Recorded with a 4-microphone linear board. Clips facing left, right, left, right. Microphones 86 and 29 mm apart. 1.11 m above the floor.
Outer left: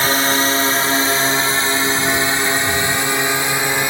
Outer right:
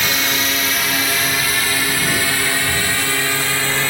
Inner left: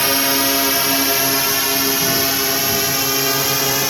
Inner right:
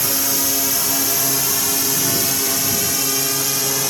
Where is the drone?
35° left (ahead or behind); by 3.9 s 20° left (ahead or behind).